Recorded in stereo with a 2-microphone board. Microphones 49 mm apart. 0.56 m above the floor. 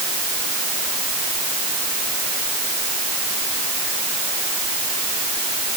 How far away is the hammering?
I don't hear hammering.